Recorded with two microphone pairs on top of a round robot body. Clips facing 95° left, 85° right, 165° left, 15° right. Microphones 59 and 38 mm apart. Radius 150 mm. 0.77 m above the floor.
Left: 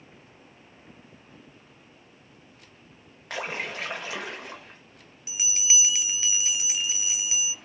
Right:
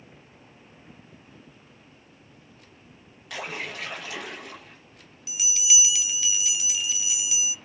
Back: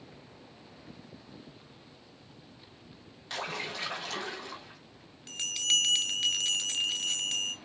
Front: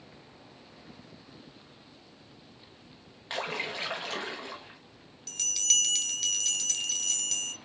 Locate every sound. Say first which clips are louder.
3.3 s a splash: left 2 dB, front 3 dB; 40° left, 0.7 m
5.3 s a bell: right 1 dB, back 4 dB; 135° left, 0.8 m